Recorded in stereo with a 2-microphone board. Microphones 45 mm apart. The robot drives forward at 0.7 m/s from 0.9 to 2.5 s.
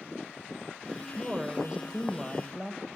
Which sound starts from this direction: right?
A woman speaking, at 1.1 s.